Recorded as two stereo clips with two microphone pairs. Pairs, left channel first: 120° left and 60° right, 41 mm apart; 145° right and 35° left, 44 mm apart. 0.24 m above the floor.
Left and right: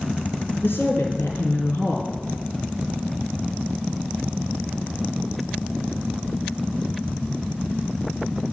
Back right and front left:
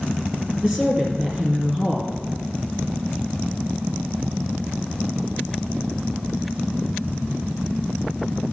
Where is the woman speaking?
110° left, 3 m.